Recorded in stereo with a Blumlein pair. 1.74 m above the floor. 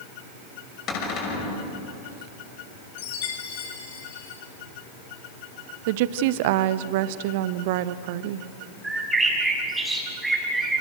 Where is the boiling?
I don't hear boiling.